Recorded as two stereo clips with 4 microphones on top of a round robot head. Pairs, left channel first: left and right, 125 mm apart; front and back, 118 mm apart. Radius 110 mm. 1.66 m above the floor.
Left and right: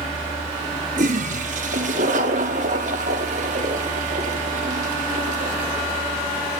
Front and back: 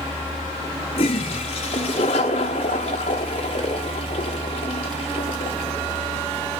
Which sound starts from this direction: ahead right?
A toilet flushing, at 1.0 s.